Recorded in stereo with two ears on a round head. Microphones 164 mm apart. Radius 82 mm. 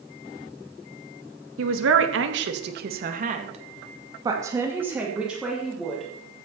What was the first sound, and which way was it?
A man speaking, 85° right.